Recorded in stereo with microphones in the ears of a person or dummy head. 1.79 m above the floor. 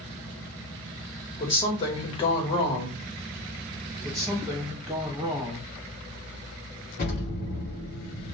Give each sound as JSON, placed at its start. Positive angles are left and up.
{"t": 1.4, "sound": "a woman speaking", "side_deg": 30, "distance_m": 1.0}
{"t": 4.0, "sound": "a woman speaking", "side_deg": -15, "distance_m": 1.1}
{"t": 7.0, "sound": "an explosion", "side_deg": 45, "distance_m": 0.9}